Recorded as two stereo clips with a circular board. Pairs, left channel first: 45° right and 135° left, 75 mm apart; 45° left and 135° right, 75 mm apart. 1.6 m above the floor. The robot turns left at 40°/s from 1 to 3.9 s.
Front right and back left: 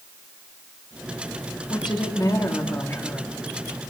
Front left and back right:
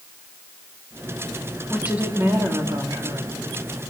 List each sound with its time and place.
1.7 s a woman speaking: 55° right, 3 m; by 3.3 s 120° right, 3 m